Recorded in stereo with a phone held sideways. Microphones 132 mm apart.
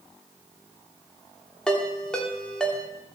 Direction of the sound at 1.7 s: 5° left (ahead or behind).